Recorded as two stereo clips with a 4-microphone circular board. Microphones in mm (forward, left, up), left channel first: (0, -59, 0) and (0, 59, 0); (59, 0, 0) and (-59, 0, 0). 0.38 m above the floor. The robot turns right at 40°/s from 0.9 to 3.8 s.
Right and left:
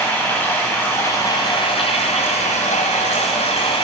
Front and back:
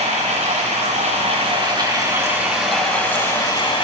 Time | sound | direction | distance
0.0 | running water | 160° right | 5 m